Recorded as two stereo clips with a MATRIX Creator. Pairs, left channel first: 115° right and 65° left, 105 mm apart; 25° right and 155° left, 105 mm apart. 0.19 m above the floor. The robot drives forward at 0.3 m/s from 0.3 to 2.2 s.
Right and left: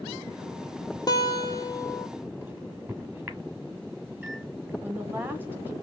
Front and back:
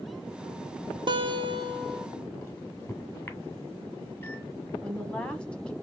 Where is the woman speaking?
40° left, 1.0 m.